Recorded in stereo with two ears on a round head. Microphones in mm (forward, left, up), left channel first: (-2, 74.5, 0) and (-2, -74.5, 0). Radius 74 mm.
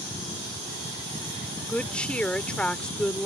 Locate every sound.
1.7 s a woman speaking: 5° left (ahead or behind)